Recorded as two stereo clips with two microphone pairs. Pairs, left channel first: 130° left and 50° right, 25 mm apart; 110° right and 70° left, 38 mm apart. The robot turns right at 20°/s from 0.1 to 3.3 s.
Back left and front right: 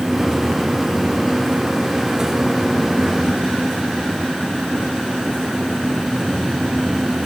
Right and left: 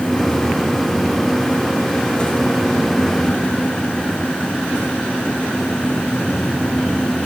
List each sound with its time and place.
Only background noise.